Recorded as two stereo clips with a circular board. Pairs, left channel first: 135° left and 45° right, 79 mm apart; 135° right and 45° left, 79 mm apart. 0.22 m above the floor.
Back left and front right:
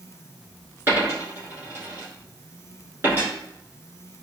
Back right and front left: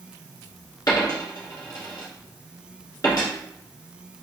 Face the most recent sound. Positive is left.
turn(degrees=-105)